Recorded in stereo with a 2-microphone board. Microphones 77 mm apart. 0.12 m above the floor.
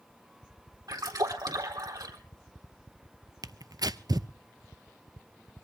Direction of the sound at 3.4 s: 55° right (ahead or behind).